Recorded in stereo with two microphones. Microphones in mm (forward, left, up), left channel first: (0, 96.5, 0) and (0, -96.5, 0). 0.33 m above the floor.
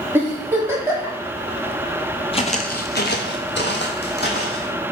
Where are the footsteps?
30° left (ahead or behind), 0.5 m; by 4.7 s 55° left (ahead or behind), 1.4 m.